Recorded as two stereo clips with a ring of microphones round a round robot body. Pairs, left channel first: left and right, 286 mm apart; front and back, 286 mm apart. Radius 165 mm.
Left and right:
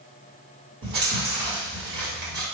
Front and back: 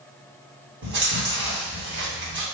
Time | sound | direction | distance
0.8 | chewing | 135° right | 1.5 m